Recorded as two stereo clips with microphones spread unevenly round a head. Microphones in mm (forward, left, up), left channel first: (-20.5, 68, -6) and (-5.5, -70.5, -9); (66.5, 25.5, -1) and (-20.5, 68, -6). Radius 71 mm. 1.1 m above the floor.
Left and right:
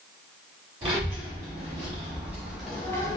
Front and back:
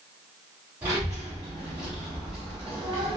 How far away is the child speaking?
About 1.4 m.